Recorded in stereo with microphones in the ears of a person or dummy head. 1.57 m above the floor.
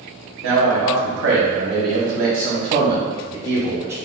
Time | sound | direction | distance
0.4 | a man speaking | 75° right (ahead or behind) | 1.2 m